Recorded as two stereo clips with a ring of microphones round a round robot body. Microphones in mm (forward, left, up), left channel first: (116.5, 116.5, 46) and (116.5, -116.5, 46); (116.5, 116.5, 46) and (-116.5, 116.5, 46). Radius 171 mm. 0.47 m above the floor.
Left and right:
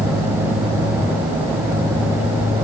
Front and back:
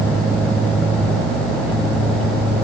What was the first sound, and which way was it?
Only background noise.